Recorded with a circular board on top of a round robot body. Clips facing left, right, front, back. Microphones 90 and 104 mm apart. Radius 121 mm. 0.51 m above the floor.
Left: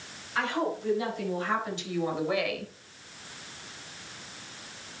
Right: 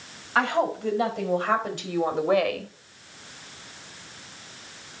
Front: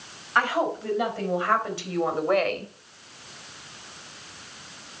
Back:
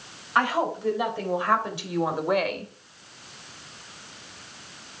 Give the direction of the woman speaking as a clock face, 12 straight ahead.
4 o'clock.